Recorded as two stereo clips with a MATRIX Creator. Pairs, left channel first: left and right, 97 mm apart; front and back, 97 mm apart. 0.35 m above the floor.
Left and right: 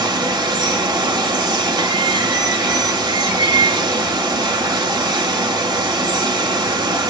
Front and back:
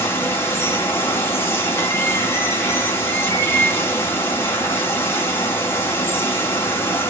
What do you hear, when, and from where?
0.0 s running water: 60° right, 0.8 m